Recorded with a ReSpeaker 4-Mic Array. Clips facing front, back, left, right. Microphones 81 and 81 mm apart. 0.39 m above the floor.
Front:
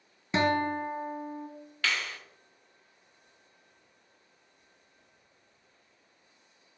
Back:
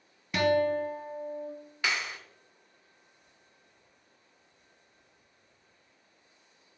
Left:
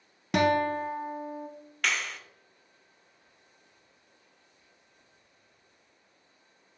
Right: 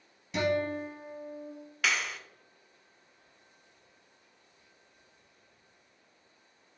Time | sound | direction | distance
0.3 | a guitar | 65° left | 0.7 m
1.8 | a clap | 170° right | 0.6 m